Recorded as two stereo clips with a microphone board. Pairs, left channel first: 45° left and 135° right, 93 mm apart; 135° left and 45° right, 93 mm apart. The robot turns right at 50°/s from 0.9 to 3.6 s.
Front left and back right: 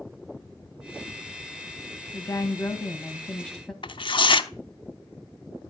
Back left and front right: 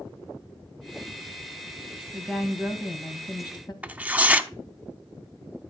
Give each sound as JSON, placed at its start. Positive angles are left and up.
{"t": 2.1, "sound": "a woman speaking", "azimuth_deg": 60, "distance_m": 1.7}
{"t": 3.8, "sound": "tearing paper", "azimuth_deg": 30, "distance_m": 0.8}